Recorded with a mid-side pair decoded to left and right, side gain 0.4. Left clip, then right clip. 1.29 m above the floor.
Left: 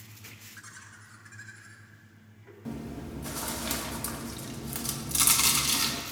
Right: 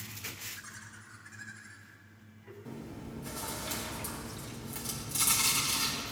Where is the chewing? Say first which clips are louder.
Left 6 dB; 60° left, 1.4 m.